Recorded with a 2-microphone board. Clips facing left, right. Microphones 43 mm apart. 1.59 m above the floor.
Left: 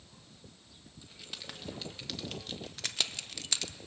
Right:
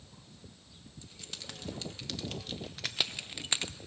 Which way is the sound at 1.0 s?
10° left (ahead or behind).